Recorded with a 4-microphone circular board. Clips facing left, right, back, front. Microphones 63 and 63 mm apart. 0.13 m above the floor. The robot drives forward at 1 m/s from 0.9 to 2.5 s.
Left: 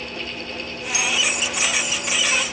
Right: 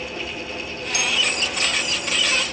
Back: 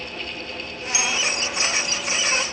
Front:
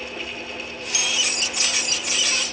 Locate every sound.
0.9 s a bell: 115° right, 3 m; by 1.2 s 120° right, 3 m